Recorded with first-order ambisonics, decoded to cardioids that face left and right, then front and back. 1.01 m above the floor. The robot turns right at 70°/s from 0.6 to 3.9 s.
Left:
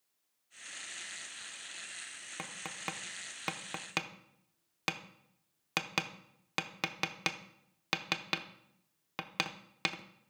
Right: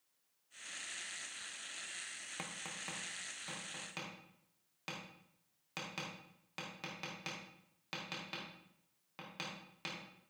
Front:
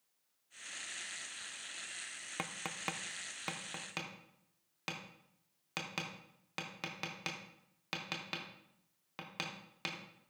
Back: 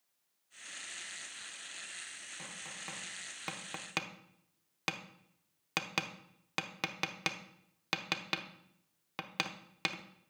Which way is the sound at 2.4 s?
15° left.